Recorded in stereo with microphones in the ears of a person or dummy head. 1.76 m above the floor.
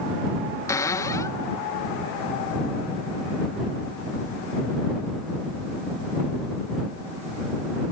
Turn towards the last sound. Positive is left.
turn(degrees=15)  # may be behind; listen again after turning